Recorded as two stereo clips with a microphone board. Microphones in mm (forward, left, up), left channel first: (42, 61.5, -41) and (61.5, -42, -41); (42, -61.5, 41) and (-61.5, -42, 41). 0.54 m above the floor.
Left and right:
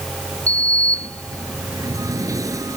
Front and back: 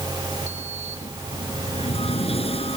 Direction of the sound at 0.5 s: 25° right.